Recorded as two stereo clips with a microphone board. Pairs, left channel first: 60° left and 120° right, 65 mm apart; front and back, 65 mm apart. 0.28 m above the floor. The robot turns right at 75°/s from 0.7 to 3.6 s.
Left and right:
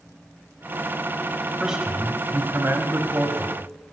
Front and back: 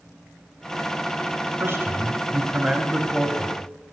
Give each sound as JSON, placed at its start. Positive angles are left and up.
{"t": 1.6, "sound": "a man speaking", "azimuth_deg": 155, "distance_m": 1.4}